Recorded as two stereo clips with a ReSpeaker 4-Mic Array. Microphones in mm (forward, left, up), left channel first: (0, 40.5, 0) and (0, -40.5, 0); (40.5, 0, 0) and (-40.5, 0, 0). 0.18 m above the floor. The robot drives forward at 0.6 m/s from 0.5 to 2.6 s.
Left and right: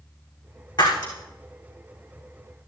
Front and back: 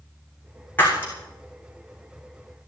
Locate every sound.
0.8 s breaking glass: 65° left, 7 m